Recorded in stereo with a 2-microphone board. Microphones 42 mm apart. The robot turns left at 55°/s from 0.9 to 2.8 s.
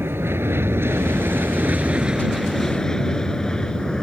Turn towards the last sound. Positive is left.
turn(degrees=15)  # may be behind; listen again after turning